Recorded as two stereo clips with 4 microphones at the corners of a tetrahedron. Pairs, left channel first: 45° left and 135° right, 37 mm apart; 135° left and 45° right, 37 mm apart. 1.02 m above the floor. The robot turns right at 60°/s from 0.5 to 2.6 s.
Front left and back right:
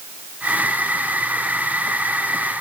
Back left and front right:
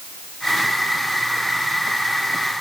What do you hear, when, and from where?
Only background noise.